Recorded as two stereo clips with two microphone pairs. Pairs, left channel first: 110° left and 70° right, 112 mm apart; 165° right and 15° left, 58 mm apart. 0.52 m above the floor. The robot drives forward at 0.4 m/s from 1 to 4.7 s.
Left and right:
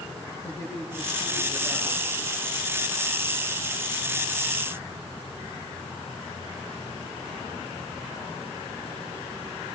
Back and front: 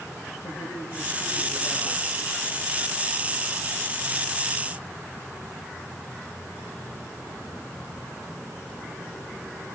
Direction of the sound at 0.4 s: Straight behind.